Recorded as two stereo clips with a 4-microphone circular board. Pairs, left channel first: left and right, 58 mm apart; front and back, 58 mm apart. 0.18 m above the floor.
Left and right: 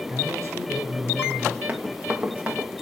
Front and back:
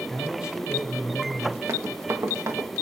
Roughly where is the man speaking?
Right.